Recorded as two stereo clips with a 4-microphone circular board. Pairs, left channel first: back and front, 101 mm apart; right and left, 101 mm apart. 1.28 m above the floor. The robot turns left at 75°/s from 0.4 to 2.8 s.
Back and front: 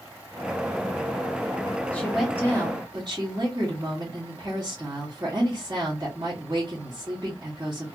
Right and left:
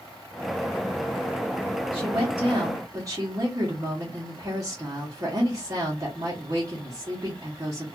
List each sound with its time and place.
1.9 s a woman speaking: 105° left, 0.9 m; by 8.0 s 40° left, 0.9 m